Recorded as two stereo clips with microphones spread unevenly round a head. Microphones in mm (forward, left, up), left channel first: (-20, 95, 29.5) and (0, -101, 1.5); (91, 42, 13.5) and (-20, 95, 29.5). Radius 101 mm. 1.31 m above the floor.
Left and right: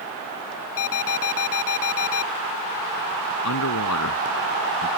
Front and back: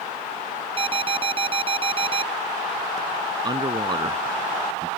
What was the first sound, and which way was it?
An alarm, 110° left.